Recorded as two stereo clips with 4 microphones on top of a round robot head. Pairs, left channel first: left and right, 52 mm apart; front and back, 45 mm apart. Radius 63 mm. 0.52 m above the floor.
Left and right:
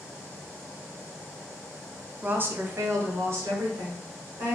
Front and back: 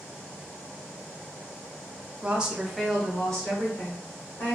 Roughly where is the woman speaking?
Behind right.